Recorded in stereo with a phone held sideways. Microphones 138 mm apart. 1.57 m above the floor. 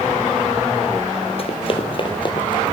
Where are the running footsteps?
45° left (ahead or behind), 2 m; by 2.7 s 30° left (ahead or behind), 2.5 m.